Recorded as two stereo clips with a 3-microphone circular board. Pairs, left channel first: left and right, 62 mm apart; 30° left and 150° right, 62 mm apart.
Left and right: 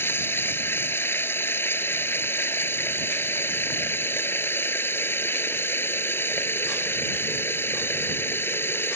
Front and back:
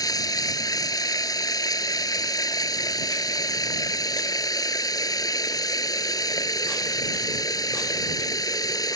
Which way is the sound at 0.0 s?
35° left.